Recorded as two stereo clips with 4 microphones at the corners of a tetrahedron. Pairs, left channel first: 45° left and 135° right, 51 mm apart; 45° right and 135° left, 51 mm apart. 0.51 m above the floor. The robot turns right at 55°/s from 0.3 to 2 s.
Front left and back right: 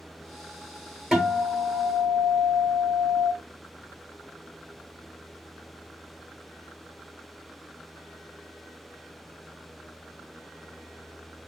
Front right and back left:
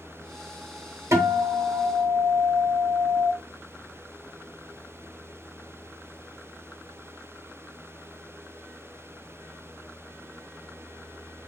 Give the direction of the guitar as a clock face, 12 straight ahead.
7 o'clock.